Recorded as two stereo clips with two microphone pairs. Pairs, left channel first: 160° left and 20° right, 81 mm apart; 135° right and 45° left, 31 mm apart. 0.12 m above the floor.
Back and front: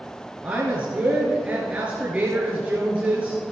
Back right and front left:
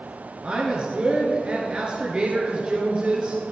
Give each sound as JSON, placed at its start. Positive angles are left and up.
{"t": 0.4, "sound": "a woman speaking", "azimuth_deg": 40, "distance_m": 1.6}